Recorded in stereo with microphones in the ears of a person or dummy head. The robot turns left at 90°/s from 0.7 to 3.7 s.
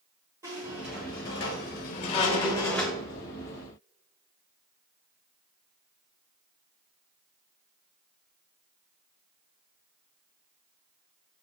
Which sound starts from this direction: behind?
A squeak, at 0.4 s.